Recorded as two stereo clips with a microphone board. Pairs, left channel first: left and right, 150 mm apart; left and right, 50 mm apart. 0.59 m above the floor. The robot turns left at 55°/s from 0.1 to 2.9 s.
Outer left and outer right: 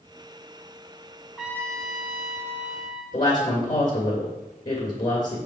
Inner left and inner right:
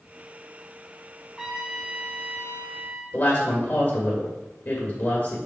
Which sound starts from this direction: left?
A woman speaking, at 3.1 s.